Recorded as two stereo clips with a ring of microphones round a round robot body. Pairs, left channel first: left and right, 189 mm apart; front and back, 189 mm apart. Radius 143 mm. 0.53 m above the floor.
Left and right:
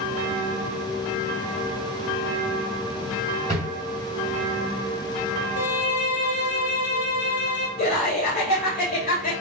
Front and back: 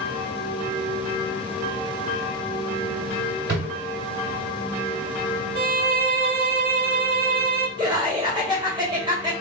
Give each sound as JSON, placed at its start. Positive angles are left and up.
{"t": 3.5, "sound": "a drawer", "azimuth_deg": 165, "distance_m": 1.8}
{"t": 5.5, "sound": "a violin", "azimuth_deg": 145, "distance_m": 0.7}
{"t": 7.8, "sound": "laughter", "azimuth_deg": 120, "distance_m": 1.8}